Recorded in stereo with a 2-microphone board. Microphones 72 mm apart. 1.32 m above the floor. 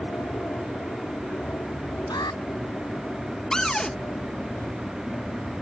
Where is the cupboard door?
10° left (ahead or behind).